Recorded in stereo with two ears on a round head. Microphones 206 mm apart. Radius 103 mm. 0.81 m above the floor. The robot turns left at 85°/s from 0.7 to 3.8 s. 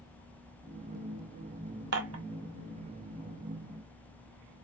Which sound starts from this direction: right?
Dishes clattering, at 1.9 s.